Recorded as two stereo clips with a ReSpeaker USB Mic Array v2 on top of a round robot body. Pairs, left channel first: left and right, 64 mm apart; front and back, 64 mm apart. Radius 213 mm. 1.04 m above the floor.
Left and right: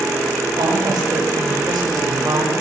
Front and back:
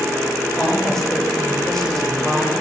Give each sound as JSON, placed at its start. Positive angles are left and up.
{"t": 0.6, "sound": "a woman speaking", "azimuth_deg": -85, "distance_m": 6.5}